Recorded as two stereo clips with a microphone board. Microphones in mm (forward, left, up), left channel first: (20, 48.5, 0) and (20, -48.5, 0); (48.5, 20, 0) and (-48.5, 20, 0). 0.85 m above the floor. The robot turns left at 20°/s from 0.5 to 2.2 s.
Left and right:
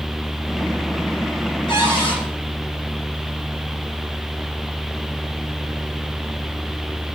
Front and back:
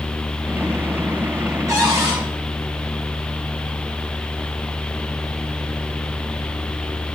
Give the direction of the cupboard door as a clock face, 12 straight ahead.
8 o'clock.